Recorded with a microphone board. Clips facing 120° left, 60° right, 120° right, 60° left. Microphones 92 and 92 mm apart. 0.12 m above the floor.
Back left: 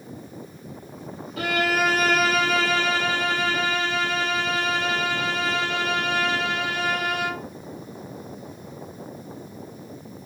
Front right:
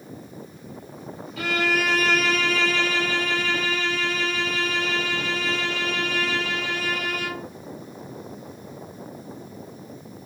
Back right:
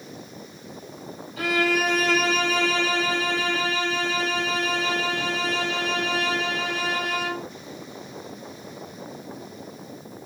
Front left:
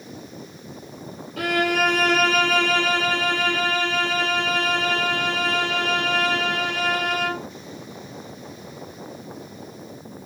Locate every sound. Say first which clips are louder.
1.4 s a violin: back left 1 dB, front left 2 dB; 75° left, 1.6 m